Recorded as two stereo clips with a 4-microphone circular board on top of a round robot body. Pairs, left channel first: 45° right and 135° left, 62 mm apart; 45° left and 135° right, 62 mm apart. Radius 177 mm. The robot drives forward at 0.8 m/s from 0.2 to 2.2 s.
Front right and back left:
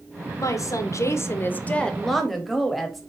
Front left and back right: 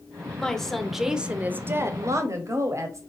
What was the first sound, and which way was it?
A woman speaking, 30° right.